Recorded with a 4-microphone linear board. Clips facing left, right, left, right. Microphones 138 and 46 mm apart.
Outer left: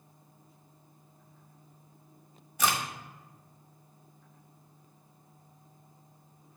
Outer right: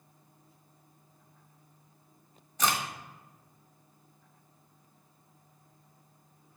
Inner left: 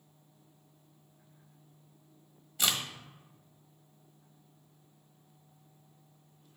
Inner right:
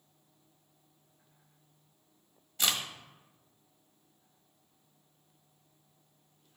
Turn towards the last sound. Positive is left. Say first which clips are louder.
# even, even
turn(degrees=10)  # may be behind; listen again after turning